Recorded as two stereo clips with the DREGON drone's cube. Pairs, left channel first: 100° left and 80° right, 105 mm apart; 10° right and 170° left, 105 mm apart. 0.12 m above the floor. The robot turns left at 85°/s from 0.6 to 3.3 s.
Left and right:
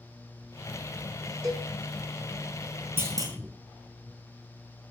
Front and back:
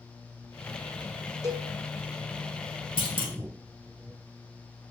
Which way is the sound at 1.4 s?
135° right.